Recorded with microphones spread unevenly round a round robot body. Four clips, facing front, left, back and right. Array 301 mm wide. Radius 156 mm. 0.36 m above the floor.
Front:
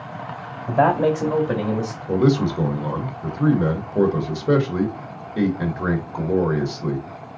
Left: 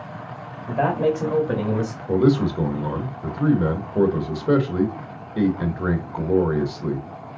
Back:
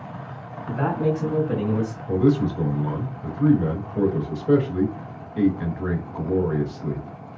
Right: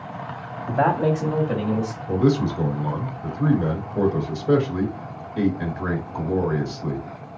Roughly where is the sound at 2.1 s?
Ahead left.